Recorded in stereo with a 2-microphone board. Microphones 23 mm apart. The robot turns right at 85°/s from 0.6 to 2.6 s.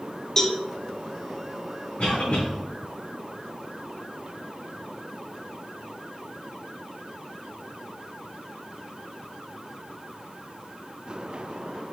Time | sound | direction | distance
0.4 | a cowbell | 20° left (ahead or behind) | 0.5 m
2.0 | a cough | 40° left | 1.8 m